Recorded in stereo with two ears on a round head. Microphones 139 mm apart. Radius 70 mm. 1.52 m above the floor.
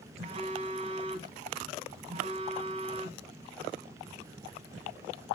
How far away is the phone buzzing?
About 1.6 m.